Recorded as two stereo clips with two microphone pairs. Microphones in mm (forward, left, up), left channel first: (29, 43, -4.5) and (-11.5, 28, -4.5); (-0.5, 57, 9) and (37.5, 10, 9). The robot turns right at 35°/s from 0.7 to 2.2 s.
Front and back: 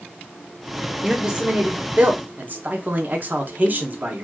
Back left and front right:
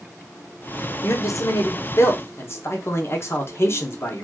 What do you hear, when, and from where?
1.0 s a man speaking: 120° left, 0.7 m; by 4.2 s 160° left, 0.7 m